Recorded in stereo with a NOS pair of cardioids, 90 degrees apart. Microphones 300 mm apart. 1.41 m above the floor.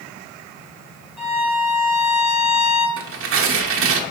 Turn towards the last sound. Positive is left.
turn(degrees=-45)